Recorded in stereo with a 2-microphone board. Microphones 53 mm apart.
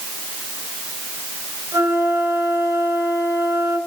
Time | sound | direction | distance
1.7 | a flute | 70° right (ahead or behind) | 5 m